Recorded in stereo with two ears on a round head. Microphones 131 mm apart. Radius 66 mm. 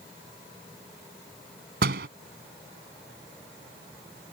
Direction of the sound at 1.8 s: 80° right.